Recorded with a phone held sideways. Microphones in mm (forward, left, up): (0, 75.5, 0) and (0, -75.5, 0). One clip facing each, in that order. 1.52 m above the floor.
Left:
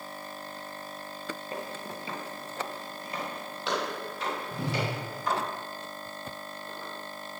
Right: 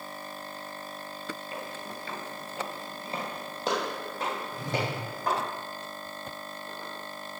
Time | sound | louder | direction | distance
1.5 | footsteps | left 1 dB | 40° left (ahead or behind) | 1.9 m
4.5 | a whoosh | left 2 dB | 70° left (ahead or behind) | 1.3 m